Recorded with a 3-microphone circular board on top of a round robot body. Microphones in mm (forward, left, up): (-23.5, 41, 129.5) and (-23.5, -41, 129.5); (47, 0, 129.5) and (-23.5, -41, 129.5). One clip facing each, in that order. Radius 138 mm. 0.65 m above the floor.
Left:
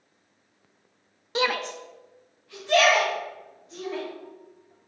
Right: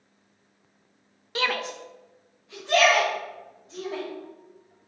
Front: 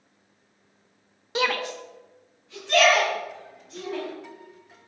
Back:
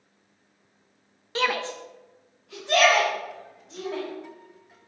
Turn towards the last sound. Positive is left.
turn(degrees=-150)